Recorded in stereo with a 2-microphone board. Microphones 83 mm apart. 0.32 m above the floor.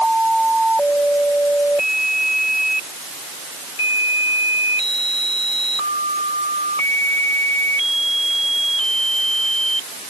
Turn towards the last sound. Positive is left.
No sound to turn to.